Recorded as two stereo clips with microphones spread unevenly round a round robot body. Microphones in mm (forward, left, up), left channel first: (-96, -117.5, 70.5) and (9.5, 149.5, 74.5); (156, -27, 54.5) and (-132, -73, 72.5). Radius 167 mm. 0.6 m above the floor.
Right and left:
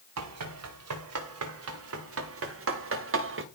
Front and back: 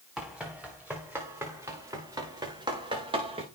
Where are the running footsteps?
100° left, 7.5 m; by 3.4 s 115° left, 6.5 m.